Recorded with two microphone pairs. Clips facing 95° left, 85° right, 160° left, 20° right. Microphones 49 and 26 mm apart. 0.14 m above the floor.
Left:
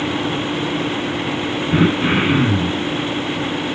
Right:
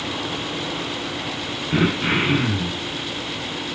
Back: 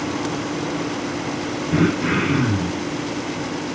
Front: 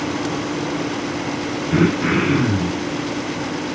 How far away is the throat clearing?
About 1.6 m.